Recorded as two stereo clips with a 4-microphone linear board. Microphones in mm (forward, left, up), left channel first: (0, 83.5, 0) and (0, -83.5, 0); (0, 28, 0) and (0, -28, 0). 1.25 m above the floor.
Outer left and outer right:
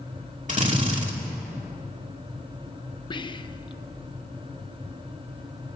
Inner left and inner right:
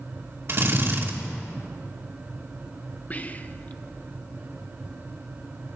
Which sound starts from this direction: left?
Whispering, at 3.1 s.